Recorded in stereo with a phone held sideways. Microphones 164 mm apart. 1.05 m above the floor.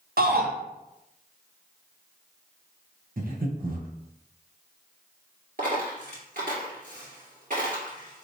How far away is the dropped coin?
About 1.8 m.